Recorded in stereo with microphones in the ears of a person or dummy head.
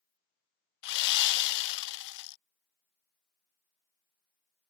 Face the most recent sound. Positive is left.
turn(degrees=65)  # may be behind; listen again after turning